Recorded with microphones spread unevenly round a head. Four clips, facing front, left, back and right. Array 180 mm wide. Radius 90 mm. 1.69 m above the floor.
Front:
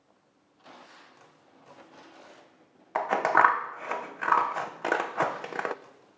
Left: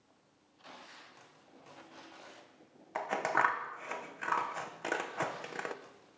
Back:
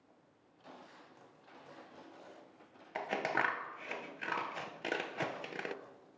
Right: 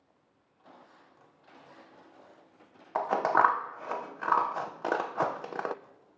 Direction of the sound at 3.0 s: 40° right.